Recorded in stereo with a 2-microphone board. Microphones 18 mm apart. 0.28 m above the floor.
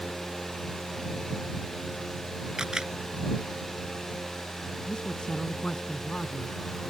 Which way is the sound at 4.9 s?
60° left (ahead or behind).